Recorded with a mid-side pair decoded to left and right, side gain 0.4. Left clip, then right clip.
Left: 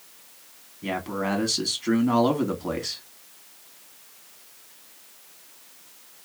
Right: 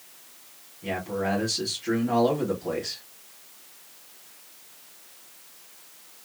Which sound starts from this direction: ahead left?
A man speaking, at 0.8 s.